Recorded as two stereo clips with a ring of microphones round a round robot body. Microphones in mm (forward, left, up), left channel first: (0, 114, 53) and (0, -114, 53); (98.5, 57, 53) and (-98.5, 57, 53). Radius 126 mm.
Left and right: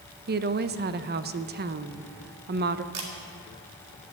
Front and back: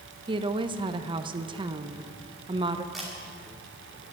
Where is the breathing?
I don't hear breathing.